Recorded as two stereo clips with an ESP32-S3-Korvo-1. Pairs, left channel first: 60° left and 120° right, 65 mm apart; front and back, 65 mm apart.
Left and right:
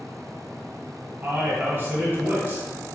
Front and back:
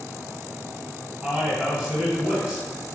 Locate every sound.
1.2 s a man speaking: 130° right, 1.4 m